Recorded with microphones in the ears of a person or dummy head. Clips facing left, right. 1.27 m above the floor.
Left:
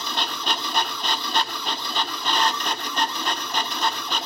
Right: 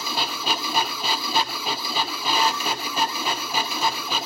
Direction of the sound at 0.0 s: 5° right (ahead or behind).